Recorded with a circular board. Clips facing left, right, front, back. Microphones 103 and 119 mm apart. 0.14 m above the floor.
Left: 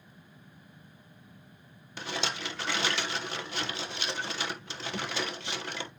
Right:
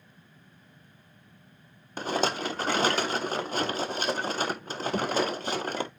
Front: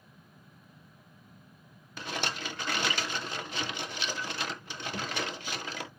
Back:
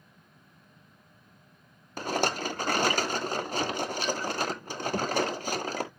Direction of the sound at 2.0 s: 135° right.